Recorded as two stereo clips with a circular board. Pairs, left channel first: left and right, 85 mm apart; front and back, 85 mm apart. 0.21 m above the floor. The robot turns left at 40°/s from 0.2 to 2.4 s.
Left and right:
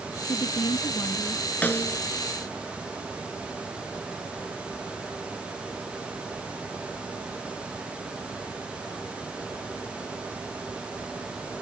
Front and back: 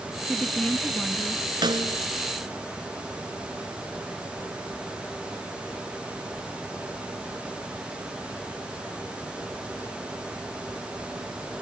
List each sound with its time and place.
0.3 s a woman speaking: 90° left; by 1.4 s 45° left
1.6 s a snare drum: 160° left; by 2.0 s 145° left